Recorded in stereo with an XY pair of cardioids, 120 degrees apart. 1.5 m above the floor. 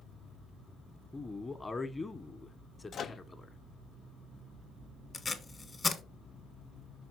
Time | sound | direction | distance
1.1 | a man speaking | 15° left | 1.3 m
2.9 | a microwave | 45° left | 0.6 m
5.1 | tape being pulled | 20° left | 1.5 m